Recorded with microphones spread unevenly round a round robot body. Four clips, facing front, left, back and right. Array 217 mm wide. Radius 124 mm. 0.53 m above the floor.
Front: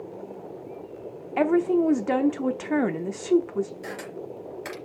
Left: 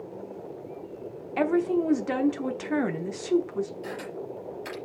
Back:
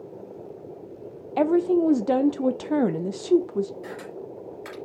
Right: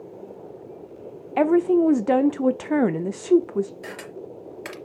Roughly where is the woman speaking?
Right.